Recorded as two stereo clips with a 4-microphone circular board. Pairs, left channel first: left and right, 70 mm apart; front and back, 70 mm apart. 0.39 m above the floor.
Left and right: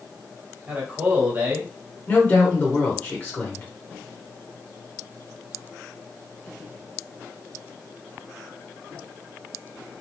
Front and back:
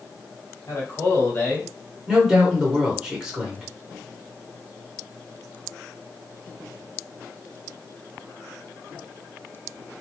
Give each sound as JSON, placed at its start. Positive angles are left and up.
{"t": 0.7, "sound": "a man speaking", "azimuth_deg": -30, "distance_m": 1.6}
{"t": 2.1, "sound": "a woman speaking", "azimuth_deg": 110, "distance_m": 1.0}